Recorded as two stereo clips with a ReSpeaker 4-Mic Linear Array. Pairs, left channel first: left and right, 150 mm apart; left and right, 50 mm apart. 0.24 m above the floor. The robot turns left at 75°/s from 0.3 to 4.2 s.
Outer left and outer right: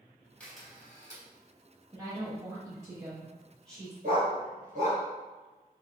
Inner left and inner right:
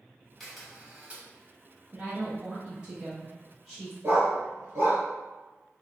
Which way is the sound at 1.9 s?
20° right (ahead or behind).